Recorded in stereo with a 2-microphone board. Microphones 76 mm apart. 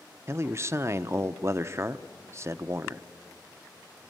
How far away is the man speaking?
About 0.6 m.